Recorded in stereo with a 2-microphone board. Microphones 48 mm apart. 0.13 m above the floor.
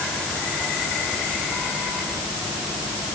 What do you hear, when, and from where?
Only background noise.